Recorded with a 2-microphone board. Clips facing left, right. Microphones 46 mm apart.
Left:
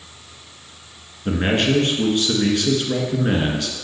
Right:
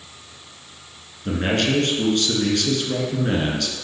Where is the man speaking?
20° left (ahead or behind), 1.4 m.